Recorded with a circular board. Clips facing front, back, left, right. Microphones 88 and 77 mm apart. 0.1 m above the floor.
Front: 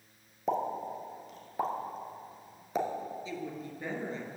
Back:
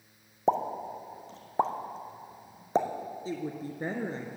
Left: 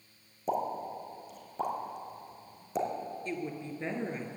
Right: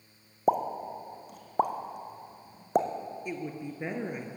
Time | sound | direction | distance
0.5 | a pop | 120° right | 1.5 m
3.2 | a woman speaking | 160° right | 1.4 m